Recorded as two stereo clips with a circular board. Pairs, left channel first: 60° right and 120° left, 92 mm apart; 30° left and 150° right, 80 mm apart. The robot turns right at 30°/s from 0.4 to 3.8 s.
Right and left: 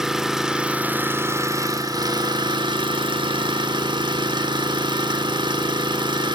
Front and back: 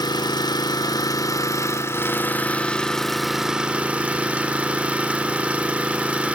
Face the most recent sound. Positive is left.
turn(degrees=135)